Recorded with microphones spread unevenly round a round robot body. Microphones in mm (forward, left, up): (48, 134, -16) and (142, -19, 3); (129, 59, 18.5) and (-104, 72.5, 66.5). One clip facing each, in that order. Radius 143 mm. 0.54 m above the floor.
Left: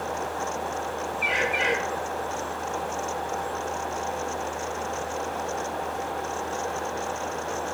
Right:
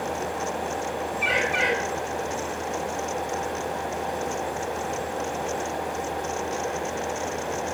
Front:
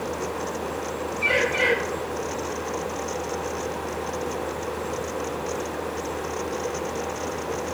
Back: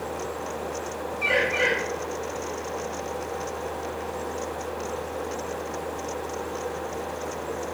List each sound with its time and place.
1.2 s a bird: 90° right, 3.5 m